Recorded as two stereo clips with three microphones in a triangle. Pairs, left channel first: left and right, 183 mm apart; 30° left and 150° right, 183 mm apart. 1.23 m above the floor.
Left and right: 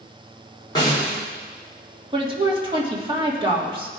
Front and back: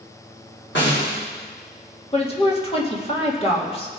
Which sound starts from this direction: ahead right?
A woman speaking, at 2.1 s.